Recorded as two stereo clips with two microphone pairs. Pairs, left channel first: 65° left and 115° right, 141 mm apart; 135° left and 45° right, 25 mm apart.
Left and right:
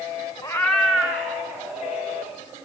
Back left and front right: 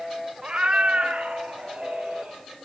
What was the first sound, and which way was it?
A cat meowing, 5° left.